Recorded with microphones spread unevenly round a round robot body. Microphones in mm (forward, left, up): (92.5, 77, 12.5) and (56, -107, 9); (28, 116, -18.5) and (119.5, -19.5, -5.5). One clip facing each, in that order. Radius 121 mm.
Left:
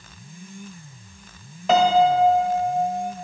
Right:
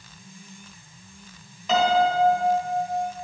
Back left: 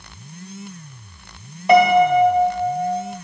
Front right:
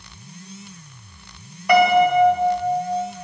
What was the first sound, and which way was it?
A piano, 75° left.